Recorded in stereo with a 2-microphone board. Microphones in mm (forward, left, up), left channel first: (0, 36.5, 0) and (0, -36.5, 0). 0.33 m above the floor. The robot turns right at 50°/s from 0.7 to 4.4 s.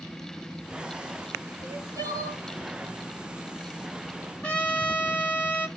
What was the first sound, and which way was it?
Crying, 115° right.